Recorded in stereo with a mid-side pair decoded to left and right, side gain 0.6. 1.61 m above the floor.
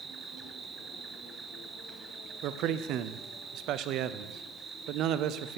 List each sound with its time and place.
0.0 s an insect: 35° right, 0.8 m
2.4 s a man speaking: 60° right, 0.5 m